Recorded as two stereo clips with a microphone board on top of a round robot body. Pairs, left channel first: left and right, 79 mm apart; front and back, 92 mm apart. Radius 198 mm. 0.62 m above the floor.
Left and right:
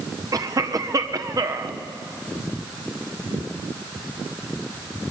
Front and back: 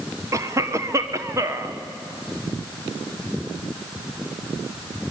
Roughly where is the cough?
Behind right.